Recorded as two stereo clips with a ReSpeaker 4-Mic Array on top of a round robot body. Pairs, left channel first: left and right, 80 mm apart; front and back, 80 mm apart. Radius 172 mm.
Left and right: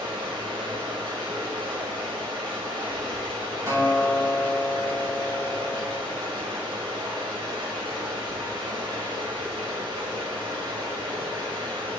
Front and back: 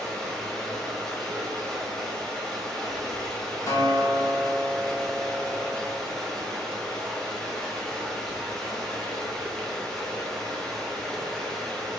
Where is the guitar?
45° right, 3 m.